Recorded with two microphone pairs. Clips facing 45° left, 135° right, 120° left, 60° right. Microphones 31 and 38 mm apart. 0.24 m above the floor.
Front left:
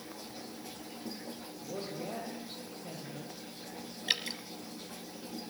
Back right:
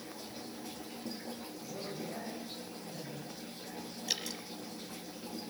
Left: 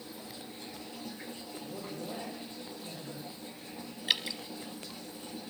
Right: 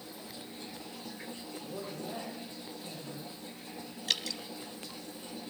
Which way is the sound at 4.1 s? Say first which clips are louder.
Front left 5 dB, left 2 dB; 65° left.